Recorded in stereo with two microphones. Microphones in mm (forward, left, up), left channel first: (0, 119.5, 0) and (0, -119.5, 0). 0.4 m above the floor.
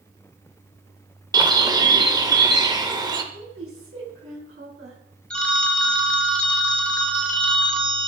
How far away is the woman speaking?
About 4 m.